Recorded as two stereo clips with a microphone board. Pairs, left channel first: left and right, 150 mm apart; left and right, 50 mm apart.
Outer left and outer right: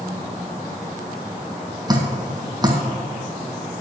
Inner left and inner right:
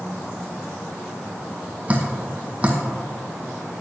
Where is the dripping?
25° right (ahead or behind), 2.0 m.